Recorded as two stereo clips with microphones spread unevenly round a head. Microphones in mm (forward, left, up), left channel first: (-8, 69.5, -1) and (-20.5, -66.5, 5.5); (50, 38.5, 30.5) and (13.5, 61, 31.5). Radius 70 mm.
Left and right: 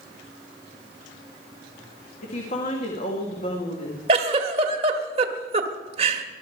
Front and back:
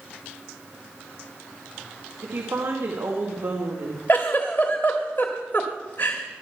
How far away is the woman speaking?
About 2 m.